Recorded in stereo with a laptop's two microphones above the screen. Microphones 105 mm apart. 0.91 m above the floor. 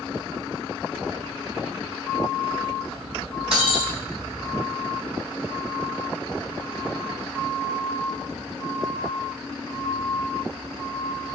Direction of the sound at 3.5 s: 65° right (ahead or behind).